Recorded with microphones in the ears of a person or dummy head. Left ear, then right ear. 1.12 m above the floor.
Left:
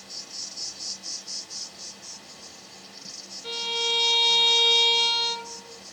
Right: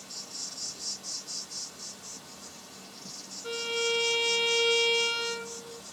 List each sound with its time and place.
0.0 s an insect: 20° left (ahead or behind), 1.2 m
3.4 s a violin: 35° left (ahead or behind), 1.2 m